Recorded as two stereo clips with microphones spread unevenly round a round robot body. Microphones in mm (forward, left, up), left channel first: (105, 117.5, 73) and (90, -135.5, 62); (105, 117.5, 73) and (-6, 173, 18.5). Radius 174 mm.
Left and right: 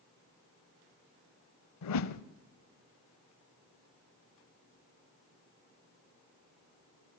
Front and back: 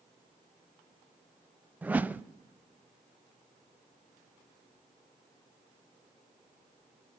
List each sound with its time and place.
1.8 s a whoosh: 70° left, 0.8 m